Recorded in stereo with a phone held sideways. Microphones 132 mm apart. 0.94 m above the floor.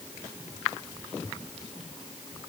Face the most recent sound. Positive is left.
No sound to turn to.